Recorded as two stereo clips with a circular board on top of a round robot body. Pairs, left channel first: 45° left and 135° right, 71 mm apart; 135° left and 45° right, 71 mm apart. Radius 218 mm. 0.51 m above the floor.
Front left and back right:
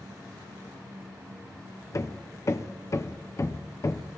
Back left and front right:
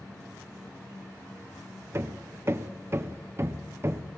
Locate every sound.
1.9 s hammering: 5° left, 0.8 m